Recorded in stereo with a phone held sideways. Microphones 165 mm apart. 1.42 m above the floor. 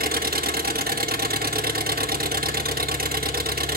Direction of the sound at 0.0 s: 70° right (ahead or behind).